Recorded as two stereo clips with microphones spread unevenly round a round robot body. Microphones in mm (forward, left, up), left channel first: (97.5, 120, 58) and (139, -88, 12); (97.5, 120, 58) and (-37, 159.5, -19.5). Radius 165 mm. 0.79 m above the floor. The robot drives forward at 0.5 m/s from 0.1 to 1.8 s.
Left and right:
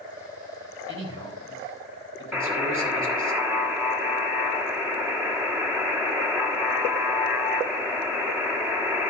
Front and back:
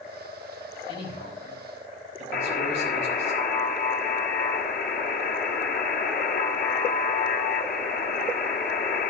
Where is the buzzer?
5° left, 2 m.